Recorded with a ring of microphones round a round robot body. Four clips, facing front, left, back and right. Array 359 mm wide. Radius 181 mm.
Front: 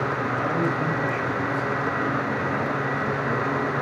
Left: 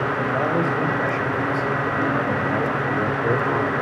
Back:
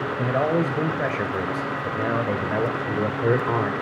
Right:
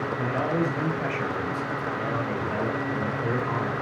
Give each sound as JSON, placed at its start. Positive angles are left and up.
{"t": 0.2, "sound": "a man speaking", "azimuth_deg": 165, "distance_m": 5.5}